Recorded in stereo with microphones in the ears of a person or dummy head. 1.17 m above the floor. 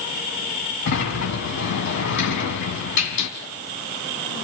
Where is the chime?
No chime in this recording.